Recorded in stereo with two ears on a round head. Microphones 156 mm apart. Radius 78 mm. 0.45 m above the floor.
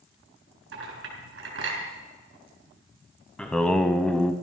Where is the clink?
80° right, 4 m.